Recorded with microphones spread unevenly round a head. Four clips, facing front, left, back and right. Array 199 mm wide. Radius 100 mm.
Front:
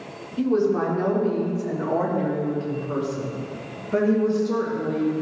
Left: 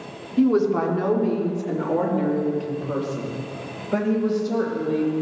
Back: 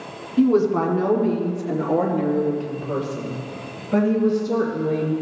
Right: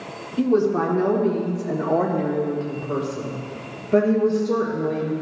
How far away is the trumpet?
I don't hear a trumpet.